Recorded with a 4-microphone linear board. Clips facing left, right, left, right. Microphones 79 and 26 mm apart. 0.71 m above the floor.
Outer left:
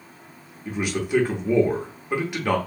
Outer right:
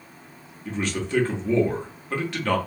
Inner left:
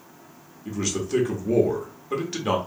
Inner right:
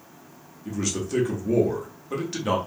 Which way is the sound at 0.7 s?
10° left (ahead or behind).